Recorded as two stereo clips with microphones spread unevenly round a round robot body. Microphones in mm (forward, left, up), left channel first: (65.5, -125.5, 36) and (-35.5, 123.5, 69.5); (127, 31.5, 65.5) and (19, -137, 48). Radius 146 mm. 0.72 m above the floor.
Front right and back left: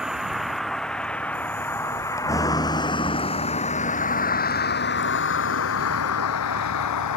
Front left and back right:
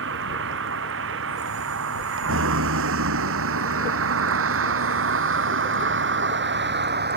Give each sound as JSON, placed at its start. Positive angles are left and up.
{"t": 0.0, "sound": "a vehicle", "azimuth_deg": -160}